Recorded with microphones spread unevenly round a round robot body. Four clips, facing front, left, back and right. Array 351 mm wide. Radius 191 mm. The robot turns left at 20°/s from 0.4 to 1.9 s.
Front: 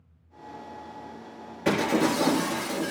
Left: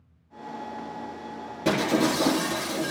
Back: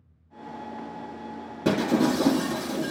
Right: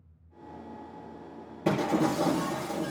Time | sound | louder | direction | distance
1.6 | breaking glass | left 3 dB, back 1 dB | straight behind | 3.5 m